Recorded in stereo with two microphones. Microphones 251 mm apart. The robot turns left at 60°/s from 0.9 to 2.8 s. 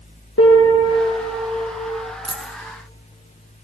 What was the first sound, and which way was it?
A piano, 80° left.